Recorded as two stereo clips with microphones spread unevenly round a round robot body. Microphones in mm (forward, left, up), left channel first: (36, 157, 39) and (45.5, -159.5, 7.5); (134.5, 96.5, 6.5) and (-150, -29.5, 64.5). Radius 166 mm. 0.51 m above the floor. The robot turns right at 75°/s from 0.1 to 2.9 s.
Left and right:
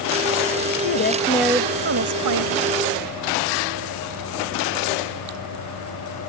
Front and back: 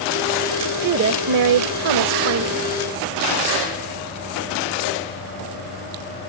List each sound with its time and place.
0.8 s a woman speaking: 135° left; by 2.7 s 85° right